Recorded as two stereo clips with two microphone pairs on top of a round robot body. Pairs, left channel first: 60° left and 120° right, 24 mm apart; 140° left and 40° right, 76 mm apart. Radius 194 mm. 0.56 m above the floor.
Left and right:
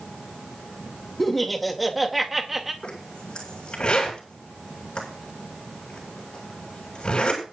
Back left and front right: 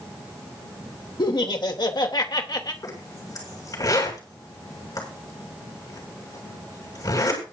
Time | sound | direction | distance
1.2 | laughter | 140° left | 2.5 m
2.8 | a zipper | 105° left | 7 m